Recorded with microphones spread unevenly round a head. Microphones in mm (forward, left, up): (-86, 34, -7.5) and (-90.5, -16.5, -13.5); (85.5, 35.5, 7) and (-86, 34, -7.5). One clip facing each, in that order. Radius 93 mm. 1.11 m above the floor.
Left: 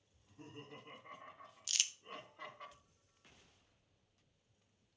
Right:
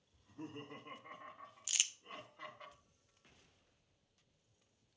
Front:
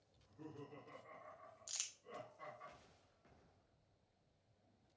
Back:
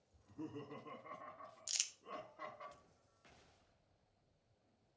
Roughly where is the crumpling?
Behind right.